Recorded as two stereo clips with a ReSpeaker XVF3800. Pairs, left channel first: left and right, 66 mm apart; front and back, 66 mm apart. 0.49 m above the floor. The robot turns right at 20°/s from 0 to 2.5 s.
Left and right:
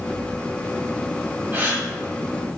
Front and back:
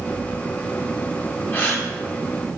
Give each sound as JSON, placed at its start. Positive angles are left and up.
{"t": 1.5, "sound": "a gasp", "azimuth_deg": -50, "distance_m": 1.0}